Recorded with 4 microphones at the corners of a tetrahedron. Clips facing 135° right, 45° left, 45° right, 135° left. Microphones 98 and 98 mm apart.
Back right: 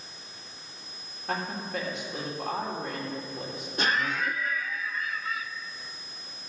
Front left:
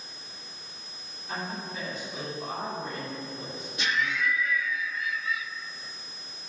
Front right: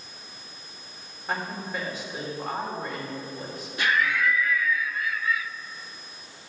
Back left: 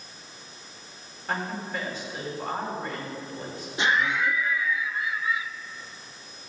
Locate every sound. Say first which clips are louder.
1.3 s a woman speaking: back right 4 dB, even; 125° right, 4 m
3.8 s laughter: back right 1 dB, even; 165° right, 0.6 m